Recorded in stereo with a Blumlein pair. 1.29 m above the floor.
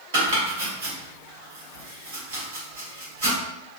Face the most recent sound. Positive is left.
turn(degrees=-60)